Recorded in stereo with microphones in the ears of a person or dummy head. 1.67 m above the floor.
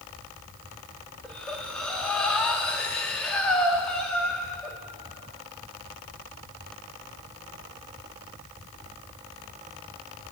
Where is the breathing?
Centre (ahead or behind), 2.0 m.